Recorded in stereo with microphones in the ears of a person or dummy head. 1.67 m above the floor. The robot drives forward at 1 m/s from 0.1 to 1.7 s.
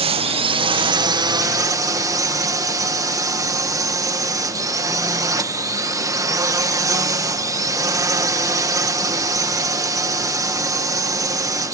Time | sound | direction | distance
0.0 | a drone | 35° right (ahead or behind) | ?